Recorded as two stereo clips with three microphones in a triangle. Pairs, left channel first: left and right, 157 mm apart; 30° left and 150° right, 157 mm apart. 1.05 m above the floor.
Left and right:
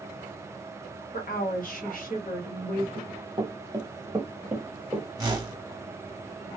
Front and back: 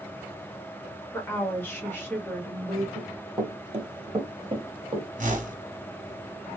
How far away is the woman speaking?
About 1.2 m.